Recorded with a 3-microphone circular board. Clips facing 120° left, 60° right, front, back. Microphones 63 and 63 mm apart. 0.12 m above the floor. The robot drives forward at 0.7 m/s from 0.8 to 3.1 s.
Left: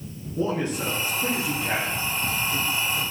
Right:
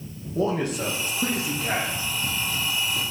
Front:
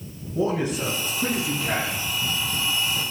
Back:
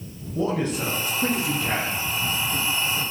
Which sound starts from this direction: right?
A man speaking, at 0.3 s.